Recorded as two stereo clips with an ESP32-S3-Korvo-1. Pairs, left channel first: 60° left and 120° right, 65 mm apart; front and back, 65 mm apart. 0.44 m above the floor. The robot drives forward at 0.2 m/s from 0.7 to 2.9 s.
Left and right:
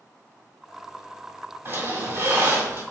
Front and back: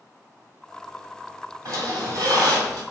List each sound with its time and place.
1.6 s a squeak: 170° right, 1.9 m